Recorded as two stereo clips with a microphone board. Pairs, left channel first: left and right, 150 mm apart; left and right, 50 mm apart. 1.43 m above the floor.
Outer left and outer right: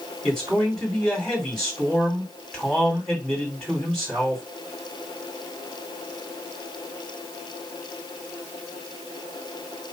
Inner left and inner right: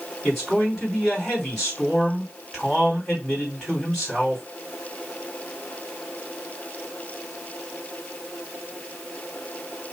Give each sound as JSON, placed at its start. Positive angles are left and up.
{"t": 0.2, "sound": "a man speaking", "side_deg": 5, "distance_m": 2.5}